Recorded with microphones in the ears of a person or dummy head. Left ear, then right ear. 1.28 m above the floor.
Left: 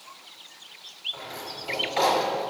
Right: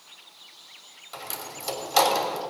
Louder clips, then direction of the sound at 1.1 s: Left 1 dB; 80° right.